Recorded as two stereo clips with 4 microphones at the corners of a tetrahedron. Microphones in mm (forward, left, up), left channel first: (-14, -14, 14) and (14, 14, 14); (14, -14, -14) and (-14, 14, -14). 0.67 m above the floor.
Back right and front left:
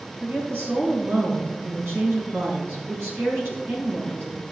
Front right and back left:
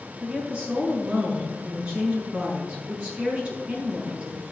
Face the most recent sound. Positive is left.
turn(degrees=70)